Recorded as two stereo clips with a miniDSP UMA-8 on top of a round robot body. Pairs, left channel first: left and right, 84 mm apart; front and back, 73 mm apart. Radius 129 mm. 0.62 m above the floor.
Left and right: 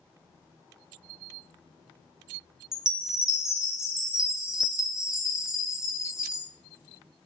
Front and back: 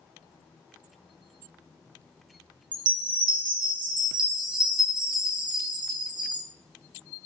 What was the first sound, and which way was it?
A chime, 175° right.